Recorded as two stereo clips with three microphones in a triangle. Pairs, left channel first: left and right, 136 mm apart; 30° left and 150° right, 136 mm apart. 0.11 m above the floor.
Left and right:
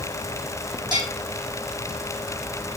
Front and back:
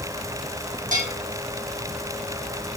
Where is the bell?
145° right, 3 m.